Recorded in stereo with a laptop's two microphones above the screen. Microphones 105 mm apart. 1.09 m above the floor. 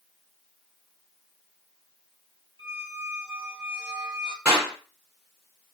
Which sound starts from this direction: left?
A squeak, at 2.6 s.